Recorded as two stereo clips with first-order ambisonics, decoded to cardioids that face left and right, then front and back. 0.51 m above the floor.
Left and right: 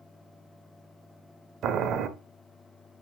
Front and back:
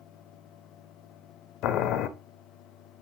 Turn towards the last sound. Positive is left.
turn(degrees=-40)